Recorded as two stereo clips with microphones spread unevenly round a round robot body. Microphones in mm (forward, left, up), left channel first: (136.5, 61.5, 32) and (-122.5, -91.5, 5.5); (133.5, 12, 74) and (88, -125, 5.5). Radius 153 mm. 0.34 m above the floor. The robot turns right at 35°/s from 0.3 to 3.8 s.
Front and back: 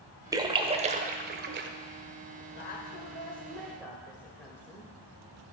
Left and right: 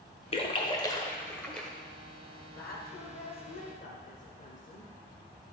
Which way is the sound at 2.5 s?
75° left.